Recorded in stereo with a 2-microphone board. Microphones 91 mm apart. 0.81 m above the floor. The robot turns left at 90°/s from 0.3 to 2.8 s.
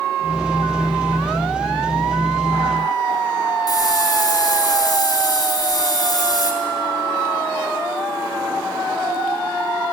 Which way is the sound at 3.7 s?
45° left (ahead or behind).